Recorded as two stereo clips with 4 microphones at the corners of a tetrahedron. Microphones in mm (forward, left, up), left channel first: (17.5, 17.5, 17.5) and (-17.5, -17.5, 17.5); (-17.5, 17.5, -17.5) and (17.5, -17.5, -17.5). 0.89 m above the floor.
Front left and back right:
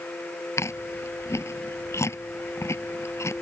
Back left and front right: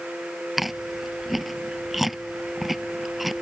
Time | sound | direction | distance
0.6 | chewing | 40° left | ?